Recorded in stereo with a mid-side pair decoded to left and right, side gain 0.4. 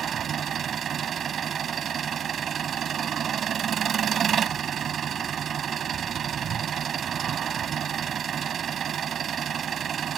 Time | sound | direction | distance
0.0 | an engine running | 55° right | ?